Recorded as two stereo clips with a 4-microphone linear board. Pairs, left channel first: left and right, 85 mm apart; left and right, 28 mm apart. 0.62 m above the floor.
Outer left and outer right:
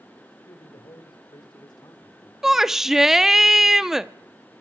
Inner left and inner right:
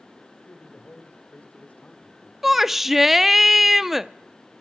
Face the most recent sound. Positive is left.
turn(degrees=-5)  # may be behind; listen again after turning